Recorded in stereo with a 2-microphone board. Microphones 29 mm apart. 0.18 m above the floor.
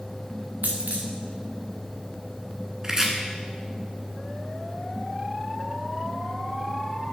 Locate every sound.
0.6 s a dropped coin: 65° right (ahead or behind), 1.6 m
2.8 s chopping: 20° right (ahead or behind), 1.6 m